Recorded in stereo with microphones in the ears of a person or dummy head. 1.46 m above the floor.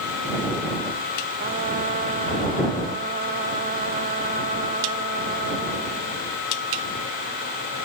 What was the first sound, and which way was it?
A trumpet, 40° right (ahead or behind).